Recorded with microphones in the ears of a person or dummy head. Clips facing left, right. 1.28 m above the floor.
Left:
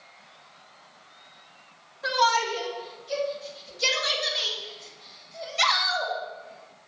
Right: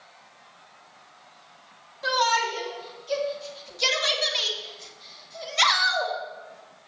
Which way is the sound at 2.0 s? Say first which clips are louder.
Left 1 dB; 65° right (ahead or behind).